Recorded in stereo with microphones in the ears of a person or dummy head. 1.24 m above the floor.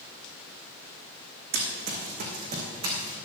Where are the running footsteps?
60° right (ahead or behind), 4 m; by 3.2 s 25° right (ahead or behind), 3.5 m.